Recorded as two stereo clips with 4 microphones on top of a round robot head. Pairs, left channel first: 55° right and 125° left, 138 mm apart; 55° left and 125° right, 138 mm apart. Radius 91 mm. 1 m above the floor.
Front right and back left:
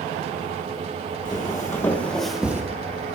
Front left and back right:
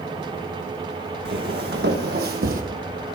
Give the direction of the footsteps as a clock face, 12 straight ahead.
4 o'clock.